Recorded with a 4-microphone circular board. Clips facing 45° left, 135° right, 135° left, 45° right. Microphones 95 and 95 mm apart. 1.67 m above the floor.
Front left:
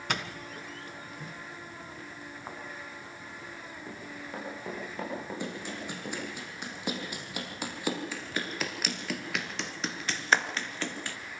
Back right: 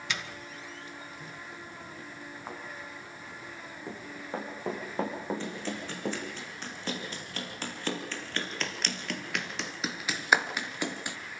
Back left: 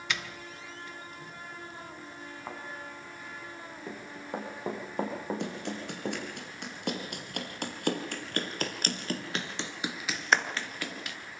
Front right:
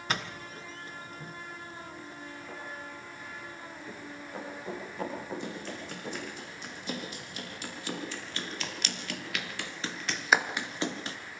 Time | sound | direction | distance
0.1 | a doorbell | 5° left | 1.6 m
2.5 | a thud | 140° left | 5.5 m
3.9 | running footsteps | 160° left | 5.5 m
5.4 | running footsteps | 120° left | 6 m